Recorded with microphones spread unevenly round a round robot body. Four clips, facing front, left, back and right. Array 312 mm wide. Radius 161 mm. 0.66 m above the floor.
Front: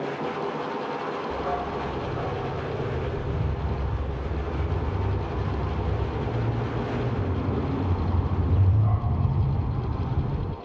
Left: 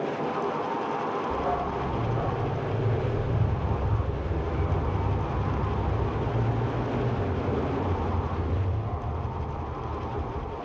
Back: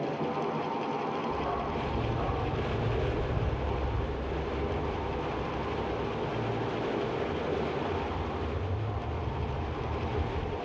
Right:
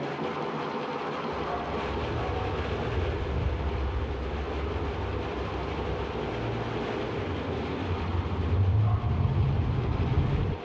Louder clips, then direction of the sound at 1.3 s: Left 4 dB, front 3 dB; 65° left.